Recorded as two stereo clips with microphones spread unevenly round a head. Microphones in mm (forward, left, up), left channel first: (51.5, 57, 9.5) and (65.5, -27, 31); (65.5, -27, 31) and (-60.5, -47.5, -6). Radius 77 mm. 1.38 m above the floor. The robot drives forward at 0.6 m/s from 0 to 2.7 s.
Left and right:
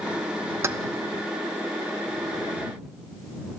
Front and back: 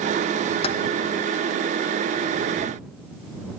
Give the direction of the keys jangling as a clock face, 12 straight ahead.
1 o'clock.